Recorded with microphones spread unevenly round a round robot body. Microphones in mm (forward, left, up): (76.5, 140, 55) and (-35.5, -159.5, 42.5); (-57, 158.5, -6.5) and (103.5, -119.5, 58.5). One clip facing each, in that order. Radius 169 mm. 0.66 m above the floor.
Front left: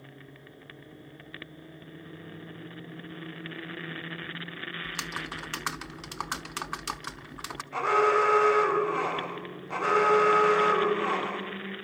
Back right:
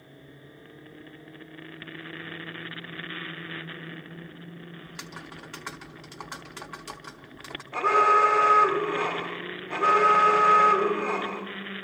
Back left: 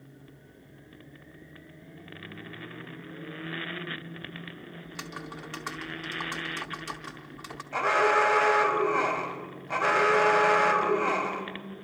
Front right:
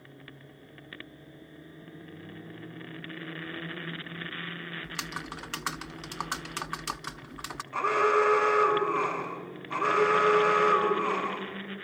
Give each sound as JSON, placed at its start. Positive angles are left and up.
{"t": 4.8, "sound": "typing on a keyboard", "azimuth_deg": 5, "distance_m": 0.6}
{"t": 7.7, "sound": "an alarm", "azimuth_deg": 140, "distance_m": 4.5}